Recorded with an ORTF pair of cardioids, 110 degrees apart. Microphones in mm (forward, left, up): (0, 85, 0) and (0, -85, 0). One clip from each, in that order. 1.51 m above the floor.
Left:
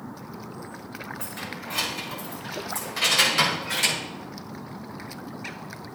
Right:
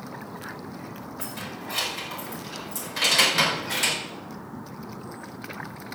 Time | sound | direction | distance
1.2 | keys jangling | 5° right | 6.5 m